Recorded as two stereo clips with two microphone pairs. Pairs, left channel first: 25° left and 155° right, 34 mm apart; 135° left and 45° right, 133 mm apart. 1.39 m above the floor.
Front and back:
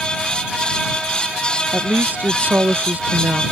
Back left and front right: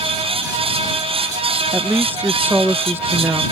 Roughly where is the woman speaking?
Behind right.